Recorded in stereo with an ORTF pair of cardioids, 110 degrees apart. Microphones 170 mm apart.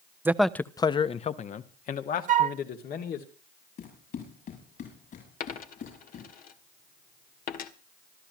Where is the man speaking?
10° right, 0.7 m; by 3.3 s 60° left, 2.5 m.